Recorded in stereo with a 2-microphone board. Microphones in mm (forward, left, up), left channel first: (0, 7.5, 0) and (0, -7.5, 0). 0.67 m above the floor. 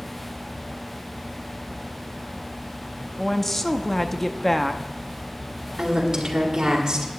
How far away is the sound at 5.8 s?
About 2 m.